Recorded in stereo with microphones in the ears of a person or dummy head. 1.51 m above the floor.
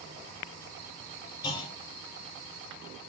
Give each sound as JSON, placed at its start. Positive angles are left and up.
{"t": 1.4, "sound": "a clunk", "side_deg": 25, "distance_m": 4.0}